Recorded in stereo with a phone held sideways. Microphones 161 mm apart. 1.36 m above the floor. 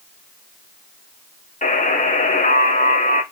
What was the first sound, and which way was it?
A buzzer, 50° left (ahead or behind).